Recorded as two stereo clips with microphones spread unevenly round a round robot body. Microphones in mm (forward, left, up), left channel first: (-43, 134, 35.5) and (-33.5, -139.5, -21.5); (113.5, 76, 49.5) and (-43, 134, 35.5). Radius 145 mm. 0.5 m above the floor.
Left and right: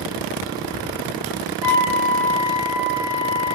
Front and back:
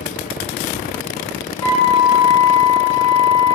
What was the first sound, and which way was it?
A flute, 45° right.